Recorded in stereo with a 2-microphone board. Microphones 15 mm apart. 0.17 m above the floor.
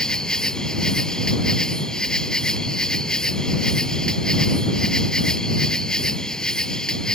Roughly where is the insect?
Left.